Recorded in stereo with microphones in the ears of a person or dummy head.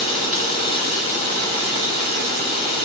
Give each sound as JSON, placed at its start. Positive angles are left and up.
{"t": 0.0, "sound": "running water", "side_deg": -50, "distance_m": 6.5}